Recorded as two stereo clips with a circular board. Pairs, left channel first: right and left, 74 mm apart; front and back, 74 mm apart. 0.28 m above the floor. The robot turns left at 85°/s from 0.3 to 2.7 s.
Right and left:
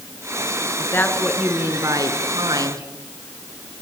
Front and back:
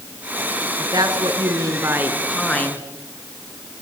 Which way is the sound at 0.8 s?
135° right.